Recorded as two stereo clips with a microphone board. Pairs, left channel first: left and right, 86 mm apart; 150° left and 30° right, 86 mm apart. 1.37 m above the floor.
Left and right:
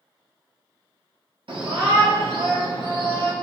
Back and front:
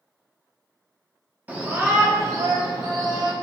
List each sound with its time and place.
1.5 s a shout: 100° right, 1.1 m; by 3.3 s 65° right, 1.6 m